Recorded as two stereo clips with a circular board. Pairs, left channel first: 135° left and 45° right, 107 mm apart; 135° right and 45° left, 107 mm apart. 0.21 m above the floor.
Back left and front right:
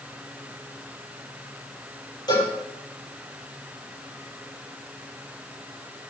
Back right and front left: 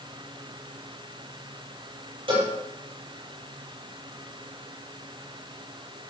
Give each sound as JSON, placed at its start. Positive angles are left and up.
{"t": 2.3, "sound": "a cowbell", "azimuth_deg": 85, "distance_m": 7.0}